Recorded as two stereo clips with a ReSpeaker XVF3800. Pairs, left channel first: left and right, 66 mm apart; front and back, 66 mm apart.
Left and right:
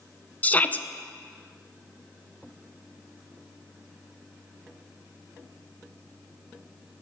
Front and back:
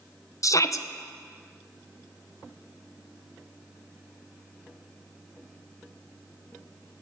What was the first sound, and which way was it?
A shout, 25° left.